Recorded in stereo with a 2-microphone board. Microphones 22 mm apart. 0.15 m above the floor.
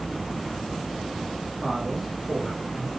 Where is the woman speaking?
25° right (ahead or behind), 1.9 m; by 2.9 s 35° right (ahead or behind), 2.5 m.